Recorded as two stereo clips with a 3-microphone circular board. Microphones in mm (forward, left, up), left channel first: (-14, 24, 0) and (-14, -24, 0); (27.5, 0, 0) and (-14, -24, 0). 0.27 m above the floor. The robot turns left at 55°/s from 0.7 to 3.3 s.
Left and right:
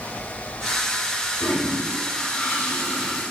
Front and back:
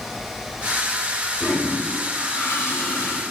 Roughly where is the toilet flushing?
Left.